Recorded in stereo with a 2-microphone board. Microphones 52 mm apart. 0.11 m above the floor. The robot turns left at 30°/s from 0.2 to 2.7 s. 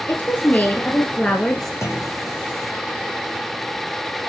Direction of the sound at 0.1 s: 50° left.